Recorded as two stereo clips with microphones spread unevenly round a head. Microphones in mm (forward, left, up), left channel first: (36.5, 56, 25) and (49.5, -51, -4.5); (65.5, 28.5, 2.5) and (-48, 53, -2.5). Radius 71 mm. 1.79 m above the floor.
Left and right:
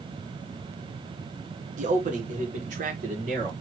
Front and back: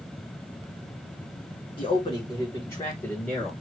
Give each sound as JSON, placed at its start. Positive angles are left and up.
{"t": 1.8, "sound": "a man speaking", "azimuth_deg": -70, "distance_m": 1.7}